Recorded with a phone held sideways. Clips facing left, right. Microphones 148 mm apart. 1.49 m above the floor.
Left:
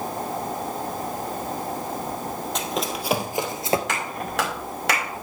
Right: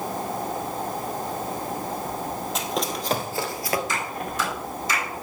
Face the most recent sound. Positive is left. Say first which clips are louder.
# left 1 dB
turn(degrees=85)